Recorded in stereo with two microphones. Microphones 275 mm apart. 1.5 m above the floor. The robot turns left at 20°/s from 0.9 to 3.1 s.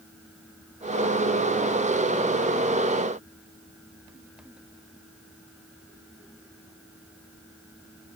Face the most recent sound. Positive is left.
No sound to turn to.